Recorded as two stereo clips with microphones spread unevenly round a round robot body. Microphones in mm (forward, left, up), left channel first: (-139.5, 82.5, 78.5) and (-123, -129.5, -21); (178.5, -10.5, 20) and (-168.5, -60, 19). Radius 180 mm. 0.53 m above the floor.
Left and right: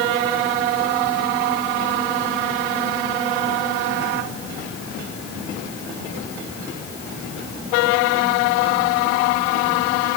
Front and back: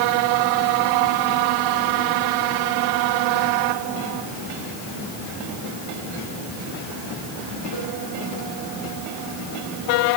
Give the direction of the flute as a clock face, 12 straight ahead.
I don't hear a flute.